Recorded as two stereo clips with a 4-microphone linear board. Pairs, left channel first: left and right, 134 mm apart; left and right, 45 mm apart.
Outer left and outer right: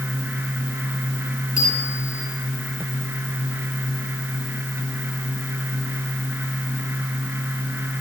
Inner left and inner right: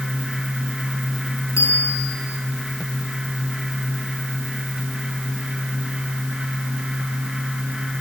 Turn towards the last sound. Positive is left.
turn(degrees=80)